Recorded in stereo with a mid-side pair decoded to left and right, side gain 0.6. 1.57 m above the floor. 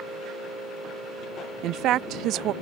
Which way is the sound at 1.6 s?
65° right.